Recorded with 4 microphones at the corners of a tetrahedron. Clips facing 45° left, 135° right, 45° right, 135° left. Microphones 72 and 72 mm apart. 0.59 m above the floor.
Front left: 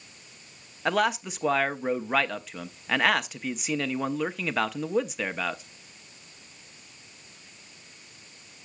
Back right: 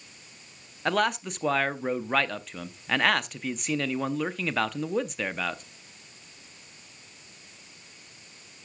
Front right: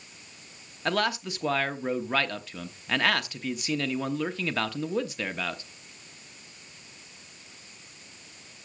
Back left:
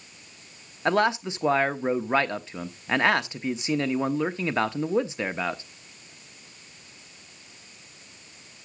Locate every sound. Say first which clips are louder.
0.8 s a man speaking: front left 1 dB, back left 5 dB; 125° left, 0.7 m